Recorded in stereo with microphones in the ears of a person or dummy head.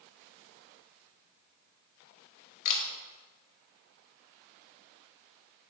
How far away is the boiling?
No boiling in this recording.